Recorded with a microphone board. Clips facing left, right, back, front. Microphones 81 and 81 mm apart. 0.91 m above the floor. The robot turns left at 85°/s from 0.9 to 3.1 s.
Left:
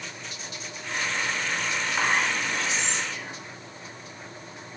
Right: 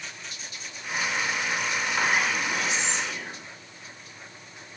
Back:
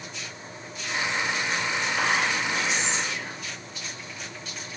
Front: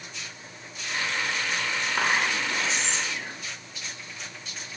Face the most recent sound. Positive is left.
turn(degrees=-90)